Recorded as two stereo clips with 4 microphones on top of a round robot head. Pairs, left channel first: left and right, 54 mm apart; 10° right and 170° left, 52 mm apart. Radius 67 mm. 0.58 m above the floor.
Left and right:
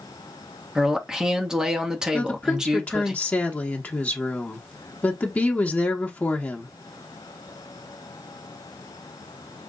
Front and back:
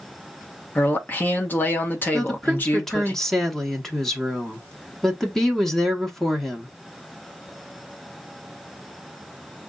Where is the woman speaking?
70° left, 1.1 m.